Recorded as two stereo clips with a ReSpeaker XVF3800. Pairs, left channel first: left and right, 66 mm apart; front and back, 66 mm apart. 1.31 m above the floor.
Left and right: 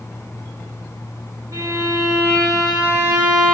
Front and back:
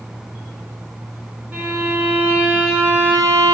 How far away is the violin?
About 3.5 m.